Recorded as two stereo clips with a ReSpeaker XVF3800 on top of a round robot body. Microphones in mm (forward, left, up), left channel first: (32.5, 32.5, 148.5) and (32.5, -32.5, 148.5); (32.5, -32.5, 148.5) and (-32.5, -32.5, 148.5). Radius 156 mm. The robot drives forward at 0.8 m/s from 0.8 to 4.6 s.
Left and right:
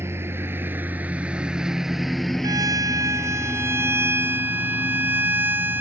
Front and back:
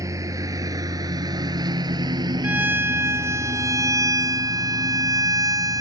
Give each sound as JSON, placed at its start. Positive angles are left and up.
{"t": 0.0, "sound": "a lawn mower", "azimuth_deg": -145}
{"t": 2.4, "sound": "a violin", "azimuth_deg": -115}